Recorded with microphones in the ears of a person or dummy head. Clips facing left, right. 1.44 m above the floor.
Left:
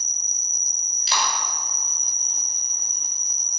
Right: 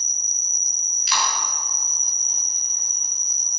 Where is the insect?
60° right (ahead or behind), 3 m.